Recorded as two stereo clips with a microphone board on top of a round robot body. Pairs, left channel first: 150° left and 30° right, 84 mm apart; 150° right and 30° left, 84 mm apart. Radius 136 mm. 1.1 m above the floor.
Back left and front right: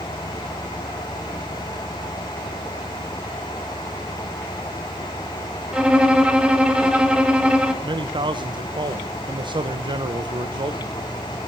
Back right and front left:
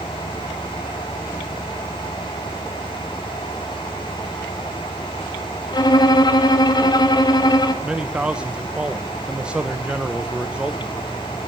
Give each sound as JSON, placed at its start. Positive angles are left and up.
{"t": 5.7, "sound": "a violin", "azimuth_deg": -110, "distance_m": 1.9}
{"t": 7.8, "sound": "a man speaking", "azimuth_deg": -50, "distance_m": 1.2}